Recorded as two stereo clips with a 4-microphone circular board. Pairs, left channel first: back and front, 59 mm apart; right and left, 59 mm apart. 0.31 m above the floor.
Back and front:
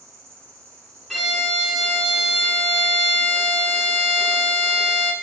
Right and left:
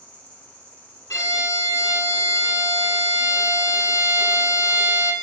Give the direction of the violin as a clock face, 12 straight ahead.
3 o'clock.